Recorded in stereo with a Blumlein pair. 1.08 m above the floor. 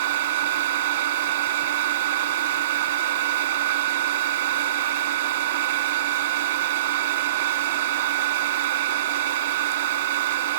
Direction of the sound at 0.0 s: 60° right.